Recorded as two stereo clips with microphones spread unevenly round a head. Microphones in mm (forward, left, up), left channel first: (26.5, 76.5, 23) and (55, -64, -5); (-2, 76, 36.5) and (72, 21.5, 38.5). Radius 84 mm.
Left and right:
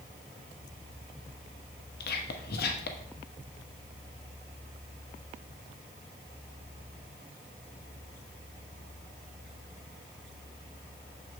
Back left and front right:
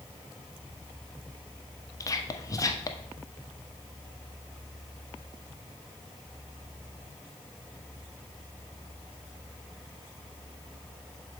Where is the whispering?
95° left, 1.2 m.